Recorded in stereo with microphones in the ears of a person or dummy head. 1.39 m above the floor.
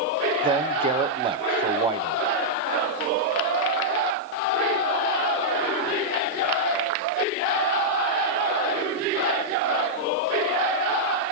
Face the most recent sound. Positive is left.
turn(degrees=-25)  # may be behind; listen again after turning